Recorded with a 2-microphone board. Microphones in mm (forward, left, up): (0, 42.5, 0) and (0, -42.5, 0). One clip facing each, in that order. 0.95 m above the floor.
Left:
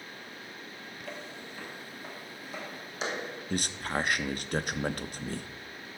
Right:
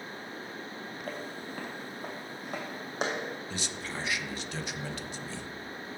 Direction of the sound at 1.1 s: 45° right (ahead or behind).